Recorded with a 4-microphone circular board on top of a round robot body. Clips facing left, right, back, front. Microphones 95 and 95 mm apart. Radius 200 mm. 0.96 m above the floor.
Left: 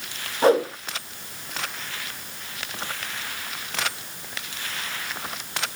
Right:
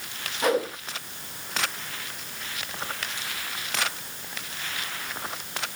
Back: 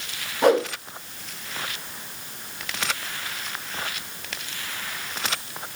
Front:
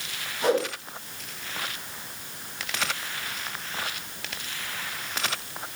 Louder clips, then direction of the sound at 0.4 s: Left 6 dB, back 5 dB; 150° left.